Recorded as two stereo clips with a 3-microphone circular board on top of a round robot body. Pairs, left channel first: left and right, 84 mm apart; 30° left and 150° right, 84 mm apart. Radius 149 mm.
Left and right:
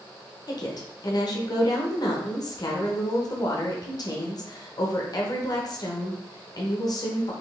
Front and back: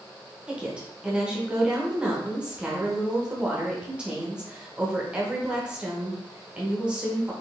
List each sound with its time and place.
0.5 s a woman speaking: 130° left, 1.1 m